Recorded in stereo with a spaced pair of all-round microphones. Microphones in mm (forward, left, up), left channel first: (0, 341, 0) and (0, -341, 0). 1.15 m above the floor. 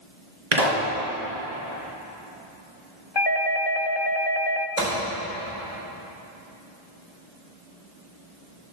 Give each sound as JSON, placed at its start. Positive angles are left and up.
{"t": 0.5, "sound": "a pop", "side_deg": -75, "distance_m": 3.0}
{"t": 3.1, "sound": "a doorbell", "side_deg": 40, "distance_m": 0.6}
{"t": 4.8, "sound": "a gunshot", "side_deg": -80, "distance_m": 4.5}